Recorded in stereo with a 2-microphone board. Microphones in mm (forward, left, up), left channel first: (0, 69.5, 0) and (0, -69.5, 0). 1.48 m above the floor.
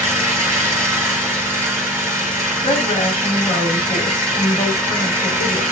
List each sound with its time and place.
0.0 s an engine running: 15° right (ahead or behind), 1.6 m
2.6 s a woman speaking: 40° left (ahead or behind), 2.0 m